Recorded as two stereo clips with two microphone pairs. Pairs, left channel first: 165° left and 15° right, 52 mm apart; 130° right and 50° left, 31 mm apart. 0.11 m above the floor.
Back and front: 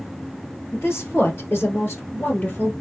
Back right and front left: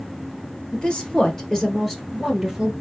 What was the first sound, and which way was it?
A woman speaking, 165° left.